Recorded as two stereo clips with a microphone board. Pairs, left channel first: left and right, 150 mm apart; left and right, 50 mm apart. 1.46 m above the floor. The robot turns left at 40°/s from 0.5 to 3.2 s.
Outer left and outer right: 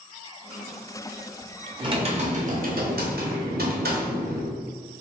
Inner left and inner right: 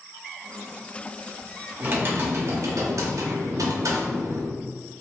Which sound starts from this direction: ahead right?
Typing on a keyboard, at 1.8 s.